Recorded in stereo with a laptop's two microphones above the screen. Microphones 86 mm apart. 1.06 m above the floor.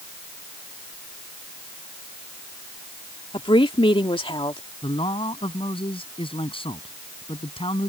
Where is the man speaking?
85° left.